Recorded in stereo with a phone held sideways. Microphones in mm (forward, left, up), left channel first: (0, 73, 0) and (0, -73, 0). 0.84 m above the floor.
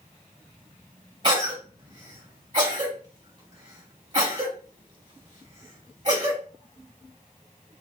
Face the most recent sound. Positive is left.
turn(degrees=-40)  # may be behind; listen again after turning